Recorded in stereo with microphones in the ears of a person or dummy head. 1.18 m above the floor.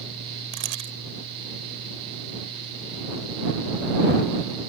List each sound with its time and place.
0.5 s a camera shutter: 70° right (ahead or behind)